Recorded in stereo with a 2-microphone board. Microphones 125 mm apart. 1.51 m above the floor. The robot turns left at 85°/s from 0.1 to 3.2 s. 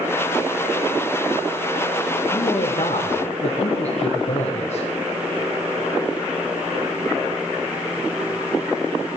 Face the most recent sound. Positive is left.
turn(degrees=65)